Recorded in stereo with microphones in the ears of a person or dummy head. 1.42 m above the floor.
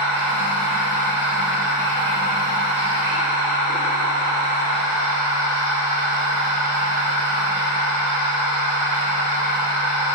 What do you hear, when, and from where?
0.0 s a machine running: 70° right (ahead or behind), 1.6 m